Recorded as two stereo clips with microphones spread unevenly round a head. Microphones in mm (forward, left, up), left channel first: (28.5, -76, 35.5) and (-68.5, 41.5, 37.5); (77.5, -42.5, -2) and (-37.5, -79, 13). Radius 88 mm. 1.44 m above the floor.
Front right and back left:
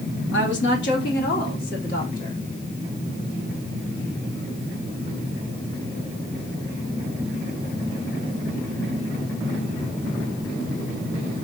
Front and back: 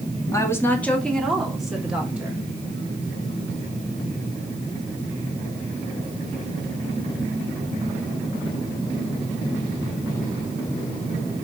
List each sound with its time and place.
0.3 s a woman speaking: 50° right, 2.5 m; by 2.4 s 85° right, 4.5 m